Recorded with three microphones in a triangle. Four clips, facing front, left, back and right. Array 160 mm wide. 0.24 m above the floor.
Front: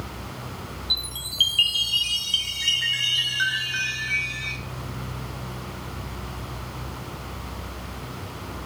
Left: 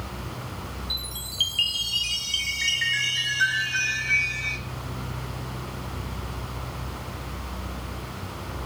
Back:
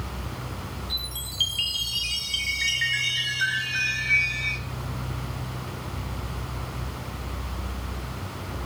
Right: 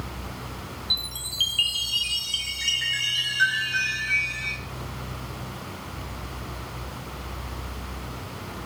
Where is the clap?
I don't hear a clap.